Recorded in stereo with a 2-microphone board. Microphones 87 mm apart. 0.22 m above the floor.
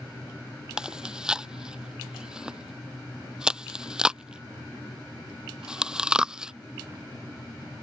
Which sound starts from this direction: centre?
Chewing, at 0.8 s.